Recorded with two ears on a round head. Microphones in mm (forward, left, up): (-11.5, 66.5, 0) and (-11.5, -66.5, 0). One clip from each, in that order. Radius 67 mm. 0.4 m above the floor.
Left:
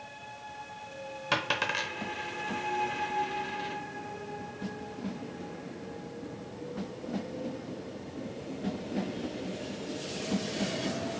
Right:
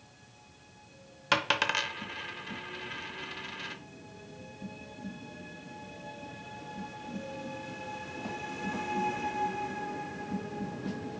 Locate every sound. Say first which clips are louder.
1.3 s a dropped coin: right 2 dB; 20° right (ahead or behind), 0.6 m